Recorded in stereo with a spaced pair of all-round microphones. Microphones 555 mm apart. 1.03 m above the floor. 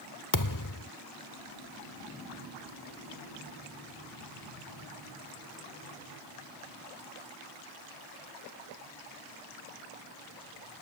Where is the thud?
35° left (ahead or behind).